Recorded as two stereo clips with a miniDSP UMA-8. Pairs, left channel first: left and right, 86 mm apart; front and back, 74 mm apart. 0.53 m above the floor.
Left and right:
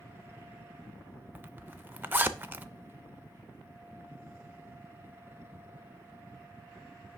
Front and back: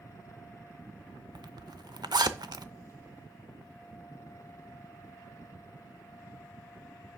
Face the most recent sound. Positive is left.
turn(degrees=-155)